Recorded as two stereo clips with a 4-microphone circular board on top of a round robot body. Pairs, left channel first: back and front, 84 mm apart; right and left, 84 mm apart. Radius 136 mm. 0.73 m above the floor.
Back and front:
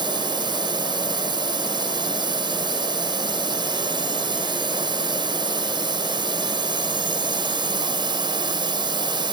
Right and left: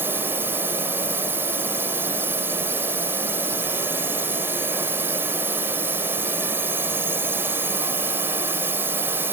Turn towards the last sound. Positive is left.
turn(degrees=25)